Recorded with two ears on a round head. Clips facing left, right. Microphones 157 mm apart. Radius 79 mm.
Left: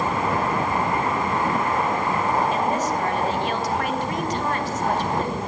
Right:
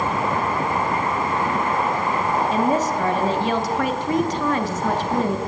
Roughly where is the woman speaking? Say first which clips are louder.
Right 3 dB; right.